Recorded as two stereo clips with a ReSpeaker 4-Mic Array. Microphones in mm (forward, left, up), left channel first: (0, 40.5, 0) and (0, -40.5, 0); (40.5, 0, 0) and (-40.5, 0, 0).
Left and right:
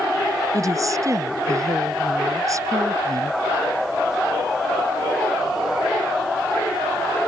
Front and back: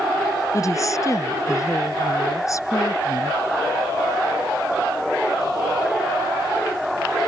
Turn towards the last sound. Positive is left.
turn(degrees=-45)